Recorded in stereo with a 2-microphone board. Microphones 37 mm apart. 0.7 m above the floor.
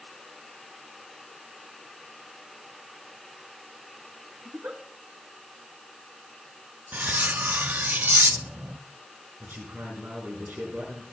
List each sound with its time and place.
4.5 s a giggle: 75° right (ahead or behind), 1.9 m
6.9 s cutlery clinking: 60° right (ahead or behind), 0.5 m
9.4 s a man speaking: 70° right (ahead or behind), 8.5 m